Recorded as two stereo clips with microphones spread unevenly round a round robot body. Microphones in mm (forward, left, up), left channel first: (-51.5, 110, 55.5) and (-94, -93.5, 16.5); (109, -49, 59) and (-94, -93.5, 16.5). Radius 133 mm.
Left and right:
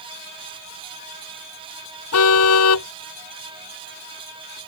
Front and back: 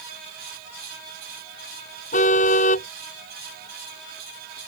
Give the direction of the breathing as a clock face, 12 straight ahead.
I don't hear breathing.